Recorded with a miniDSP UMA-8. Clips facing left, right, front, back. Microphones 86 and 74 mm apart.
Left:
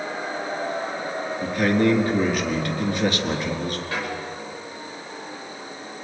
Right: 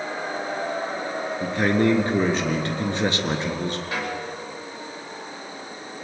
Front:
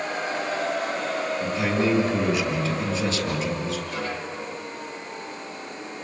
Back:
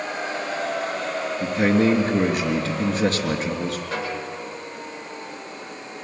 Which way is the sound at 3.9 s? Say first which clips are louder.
Even, back 2 dB; 165° right.